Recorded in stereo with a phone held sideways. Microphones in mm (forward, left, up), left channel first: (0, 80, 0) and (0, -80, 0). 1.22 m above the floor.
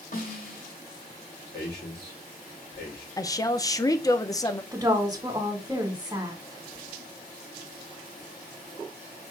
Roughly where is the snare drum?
Left.